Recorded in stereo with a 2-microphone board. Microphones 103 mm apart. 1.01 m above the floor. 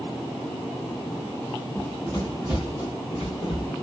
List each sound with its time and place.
1.8 s running footsteps: 30° left (ahead or behind), 1.5 m; by 3.7 s 55° left (ahead or behind), 2 m